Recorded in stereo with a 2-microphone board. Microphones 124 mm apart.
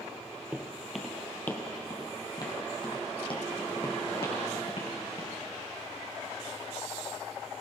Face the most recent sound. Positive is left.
turn(degrees=55)  # may be behind; listen again after turning